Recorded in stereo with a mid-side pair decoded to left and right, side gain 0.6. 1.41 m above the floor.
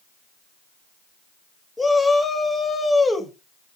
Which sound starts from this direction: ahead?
A shout, at 1.8 s.